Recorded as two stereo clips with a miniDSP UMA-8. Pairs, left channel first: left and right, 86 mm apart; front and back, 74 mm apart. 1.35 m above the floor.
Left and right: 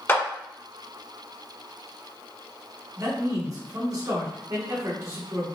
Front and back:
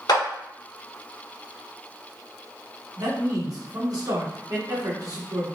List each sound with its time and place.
0.1 s a clap: 25° left, 1.1 m
3.0 s a man speaking: 140° right, 1.3 m